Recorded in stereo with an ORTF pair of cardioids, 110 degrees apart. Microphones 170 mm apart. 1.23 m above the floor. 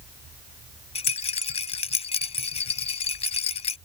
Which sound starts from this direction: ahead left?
A rattle, at 0.9 s.